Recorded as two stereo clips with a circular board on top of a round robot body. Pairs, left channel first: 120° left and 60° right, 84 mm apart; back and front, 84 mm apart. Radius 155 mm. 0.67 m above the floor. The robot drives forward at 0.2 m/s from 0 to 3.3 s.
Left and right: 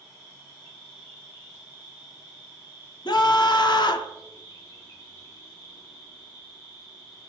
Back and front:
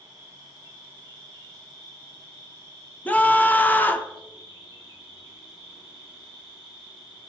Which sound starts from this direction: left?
A scream, at 3.0 s.